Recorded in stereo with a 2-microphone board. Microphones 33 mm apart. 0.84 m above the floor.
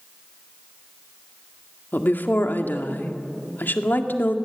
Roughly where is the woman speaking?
Left.